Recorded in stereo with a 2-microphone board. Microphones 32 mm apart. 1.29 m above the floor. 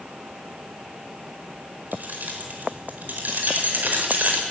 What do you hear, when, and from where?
1.9 s keys jangling: 60° right (ahead or behind), 4.5 m